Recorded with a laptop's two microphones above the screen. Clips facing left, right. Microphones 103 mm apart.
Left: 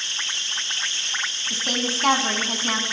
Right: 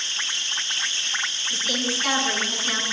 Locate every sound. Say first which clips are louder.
1.5 s a woman speaking: left 1 dB; 50° left (ahead or behind), 7 m